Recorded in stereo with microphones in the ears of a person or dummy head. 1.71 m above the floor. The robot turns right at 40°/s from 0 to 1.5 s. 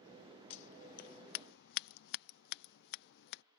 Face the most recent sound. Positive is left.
turn(degrees=70)  # may be behind; listen again after turning